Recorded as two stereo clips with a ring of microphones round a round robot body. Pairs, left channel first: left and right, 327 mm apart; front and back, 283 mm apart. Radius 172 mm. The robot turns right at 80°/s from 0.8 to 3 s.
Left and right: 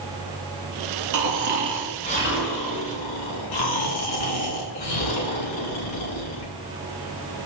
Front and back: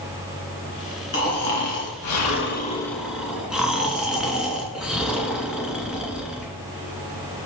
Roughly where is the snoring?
Ahead right.